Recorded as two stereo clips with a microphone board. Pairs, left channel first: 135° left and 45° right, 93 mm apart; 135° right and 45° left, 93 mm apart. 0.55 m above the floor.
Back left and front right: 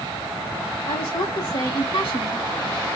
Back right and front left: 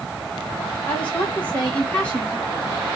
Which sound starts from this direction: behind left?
A woman speaking, at 0.9 s.